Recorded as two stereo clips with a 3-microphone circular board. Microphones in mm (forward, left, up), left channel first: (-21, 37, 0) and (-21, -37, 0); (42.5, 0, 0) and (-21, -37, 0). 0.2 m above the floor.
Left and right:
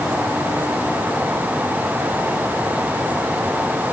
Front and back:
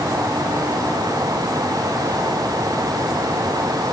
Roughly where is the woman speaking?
No woman speaking in this recording.